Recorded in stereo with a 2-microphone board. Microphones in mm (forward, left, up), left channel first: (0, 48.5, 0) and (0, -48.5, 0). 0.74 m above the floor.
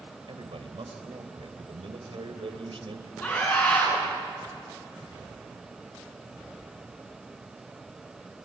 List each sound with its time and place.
0.3 s a man speaking: 70° right (ahead or behind), 3.5 m
3.2 s a scream: 25° left (ahead or behind), 9.5 m